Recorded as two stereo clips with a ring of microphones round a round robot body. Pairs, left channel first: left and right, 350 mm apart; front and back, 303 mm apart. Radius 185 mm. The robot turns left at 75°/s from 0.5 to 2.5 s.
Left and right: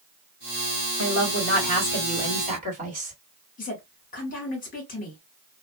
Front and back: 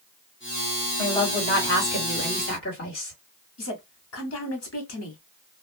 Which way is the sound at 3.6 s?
25° left.